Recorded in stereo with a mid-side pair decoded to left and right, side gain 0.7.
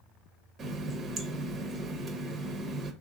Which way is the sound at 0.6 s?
35° right.